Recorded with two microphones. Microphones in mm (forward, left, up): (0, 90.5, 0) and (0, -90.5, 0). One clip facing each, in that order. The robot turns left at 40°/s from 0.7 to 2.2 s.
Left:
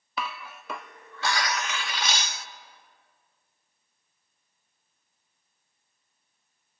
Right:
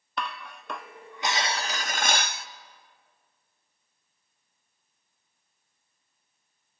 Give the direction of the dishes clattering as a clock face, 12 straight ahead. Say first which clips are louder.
Even; 12 o'clock.